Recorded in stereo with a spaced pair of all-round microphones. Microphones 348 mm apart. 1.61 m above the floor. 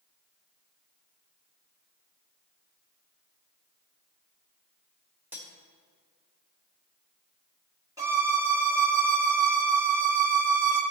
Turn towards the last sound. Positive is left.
turn(degrees=-10)  # may be behind; listen again after turning